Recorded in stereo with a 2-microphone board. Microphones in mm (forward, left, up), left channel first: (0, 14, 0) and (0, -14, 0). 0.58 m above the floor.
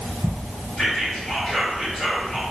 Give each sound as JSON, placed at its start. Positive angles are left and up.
{"t": 0.8, "sound": "whispering", "side_deg": 35, "distance_m": 1.9}